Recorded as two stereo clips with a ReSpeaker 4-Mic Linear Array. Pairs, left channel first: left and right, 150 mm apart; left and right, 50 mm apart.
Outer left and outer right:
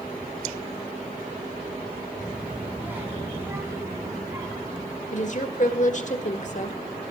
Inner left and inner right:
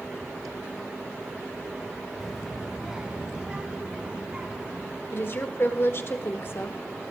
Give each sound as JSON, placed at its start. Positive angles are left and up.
{"t": 2.2, "sound": "a child speaking", "side_deg": -5, "distance_m": 1.3}
{"t": 5.1, "sound": "a woman speaking", "side_deg": 50, "distance_m": 1.6}